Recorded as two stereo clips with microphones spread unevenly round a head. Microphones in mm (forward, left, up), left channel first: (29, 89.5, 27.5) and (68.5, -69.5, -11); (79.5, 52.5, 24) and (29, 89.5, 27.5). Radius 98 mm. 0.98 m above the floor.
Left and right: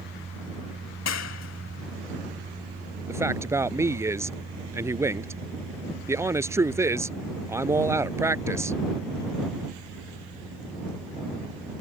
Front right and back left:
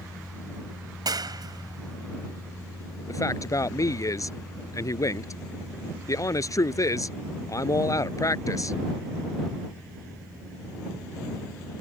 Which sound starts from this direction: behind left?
A clap, at 1.1 s.